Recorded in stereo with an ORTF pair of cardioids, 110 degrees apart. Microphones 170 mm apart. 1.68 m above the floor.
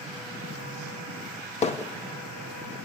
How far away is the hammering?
About 1.1 m.